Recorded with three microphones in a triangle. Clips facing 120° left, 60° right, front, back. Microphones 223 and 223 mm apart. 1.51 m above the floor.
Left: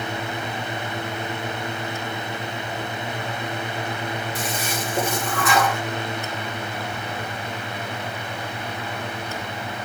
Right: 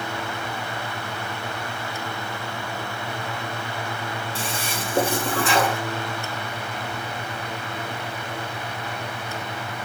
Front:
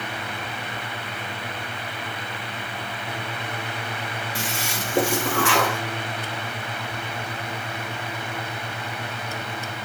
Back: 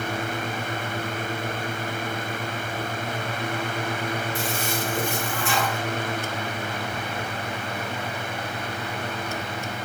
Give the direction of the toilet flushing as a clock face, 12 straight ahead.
12 o'clock.